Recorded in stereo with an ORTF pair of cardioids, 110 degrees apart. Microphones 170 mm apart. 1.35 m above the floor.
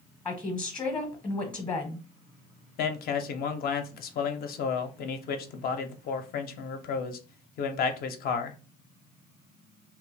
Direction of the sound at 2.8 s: 60° left.